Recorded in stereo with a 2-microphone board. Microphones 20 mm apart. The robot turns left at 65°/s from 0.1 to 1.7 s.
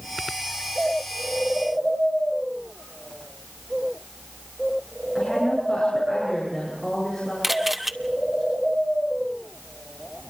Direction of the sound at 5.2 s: 5° left (ahead or behind).